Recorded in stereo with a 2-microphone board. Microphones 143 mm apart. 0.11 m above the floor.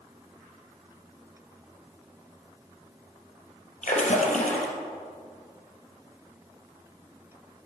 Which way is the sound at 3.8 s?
60° left (ahead or behind).